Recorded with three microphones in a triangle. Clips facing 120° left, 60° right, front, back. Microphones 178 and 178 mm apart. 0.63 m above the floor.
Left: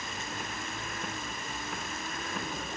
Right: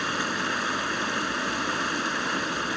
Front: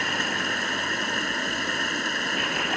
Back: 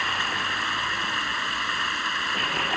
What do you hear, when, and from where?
0.0 s running water: 50° right